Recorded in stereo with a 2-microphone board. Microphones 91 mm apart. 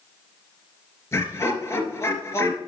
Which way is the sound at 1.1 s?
30° left (ahead or behind).